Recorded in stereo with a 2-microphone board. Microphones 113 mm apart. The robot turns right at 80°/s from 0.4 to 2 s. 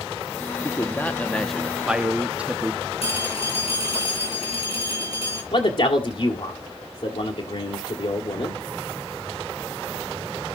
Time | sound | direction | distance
0.6 | a man speaking | 20° left (ahead or behind) | 1.0 m
3.0 | a phone ringing | 60° left (ahead or behind) | 6.5 m
5.5 | a man speaking | 55° left (ahead or behind) | 1.8 m